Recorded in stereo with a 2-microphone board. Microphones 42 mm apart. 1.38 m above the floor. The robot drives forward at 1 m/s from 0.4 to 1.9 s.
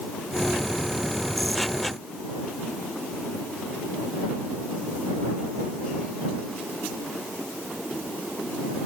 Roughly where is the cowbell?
I don't hear a cowbell.